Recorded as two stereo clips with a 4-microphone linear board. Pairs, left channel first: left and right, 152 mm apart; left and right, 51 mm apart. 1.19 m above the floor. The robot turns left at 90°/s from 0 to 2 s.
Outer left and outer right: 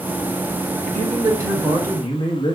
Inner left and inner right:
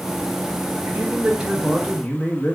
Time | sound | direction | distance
0.9 | a man speaking | 110° right | 0.8 m